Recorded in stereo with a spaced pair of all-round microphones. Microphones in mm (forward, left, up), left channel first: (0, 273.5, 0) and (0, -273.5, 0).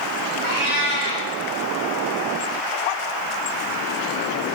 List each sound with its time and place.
0.4 s a cat meowing: 60° right (ahead or behind), 2.0 m